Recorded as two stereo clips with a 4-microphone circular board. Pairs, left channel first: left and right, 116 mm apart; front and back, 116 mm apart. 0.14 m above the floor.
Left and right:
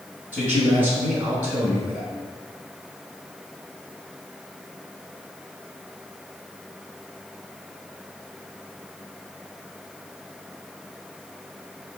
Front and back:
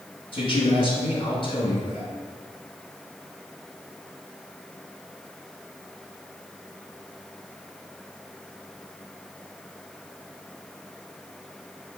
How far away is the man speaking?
About 1.3 m.